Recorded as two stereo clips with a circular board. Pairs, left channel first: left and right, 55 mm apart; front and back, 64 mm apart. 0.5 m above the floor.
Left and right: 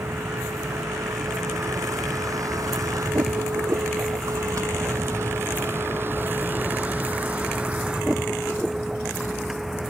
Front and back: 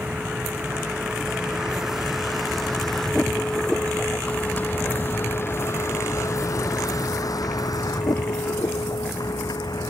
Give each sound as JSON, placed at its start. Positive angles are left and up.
{"t": 0.0, "sound": "a vehicle", "azimuth_deg": -110}